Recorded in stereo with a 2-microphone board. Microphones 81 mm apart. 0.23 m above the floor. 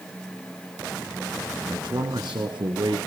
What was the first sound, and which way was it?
A man speaking, 65° right (ahead or behind).